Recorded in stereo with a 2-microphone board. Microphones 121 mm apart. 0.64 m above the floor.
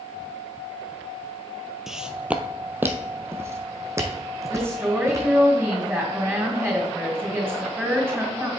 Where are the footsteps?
Centre (ahead or behind), 0.7 m; by 5.3 s 25° right (ahead or behind), 2.5 m.